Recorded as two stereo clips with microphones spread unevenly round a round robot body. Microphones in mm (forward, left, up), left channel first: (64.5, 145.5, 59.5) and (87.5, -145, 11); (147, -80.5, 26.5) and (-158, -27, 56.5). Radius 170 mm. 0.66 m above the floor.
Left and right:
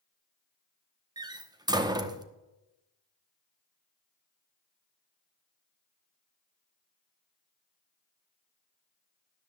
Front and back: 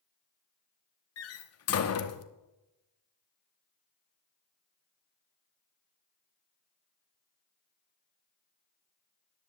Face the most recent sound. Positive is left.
turn(degrees=-20)